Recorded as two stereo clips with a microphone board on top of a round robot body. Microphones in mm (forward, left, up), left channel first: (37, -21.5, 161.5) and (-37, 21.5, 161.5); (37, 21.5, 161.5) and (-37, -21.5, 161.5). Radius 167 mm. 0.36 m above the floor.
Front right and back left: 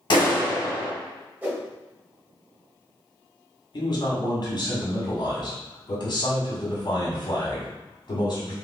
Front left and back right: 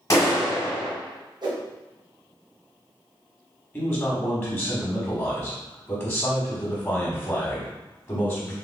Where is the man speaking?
25° right, 1.6 m.